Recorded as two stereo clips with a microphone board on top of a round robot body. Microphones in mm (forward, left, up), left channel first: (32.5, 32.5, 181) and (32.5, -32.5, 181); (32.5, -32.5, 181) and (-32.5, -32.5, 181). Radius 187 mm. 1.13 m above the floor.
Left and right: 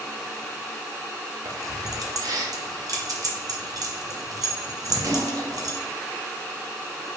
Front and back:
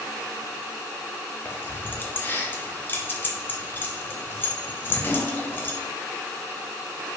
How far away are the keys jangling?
About 0.7 m.